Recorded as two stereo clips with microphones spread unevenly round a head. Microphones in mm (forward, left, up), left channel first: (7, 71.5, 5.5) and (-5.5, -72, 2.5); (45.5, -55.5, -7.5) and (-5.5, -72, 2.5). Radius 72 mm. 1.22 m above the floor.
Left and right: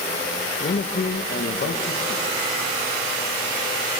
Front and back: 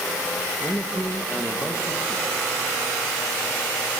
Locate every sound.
0.6 s a man speaking: 115° left, 1.4 m